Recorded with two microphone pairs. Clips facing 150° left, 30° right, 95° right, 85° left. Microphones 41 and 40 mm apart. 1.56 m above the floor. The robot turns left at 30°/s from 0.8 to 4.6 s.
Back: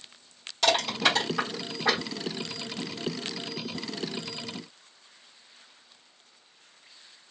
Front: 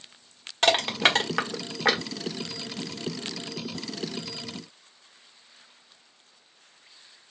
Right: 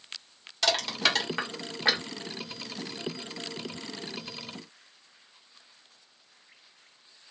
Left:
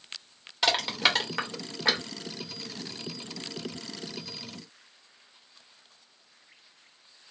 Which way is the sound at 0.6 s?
10° left.